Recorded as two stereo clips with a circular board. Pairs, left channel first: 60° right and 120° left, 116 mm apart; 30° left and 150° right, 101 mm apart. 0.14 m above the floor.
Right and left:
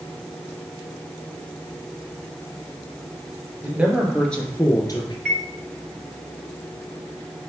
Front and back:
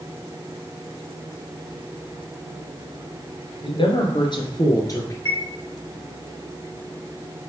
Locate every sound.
3.6 s a man speaking: 50° left, 2 m; by 5.2 s 25° right, 1.9 m
5.2 s a chime: 155° right, 1.2 m